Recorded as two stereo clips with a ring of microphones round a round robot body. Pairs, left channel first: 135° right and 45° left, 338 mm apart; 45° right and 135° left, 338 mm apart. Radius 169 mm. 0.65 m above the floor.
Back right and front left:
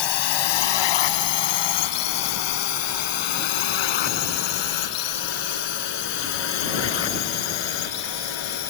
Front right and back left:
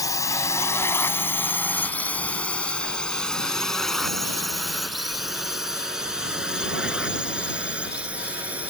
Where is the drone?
125° right; by 8.7 s 140° right.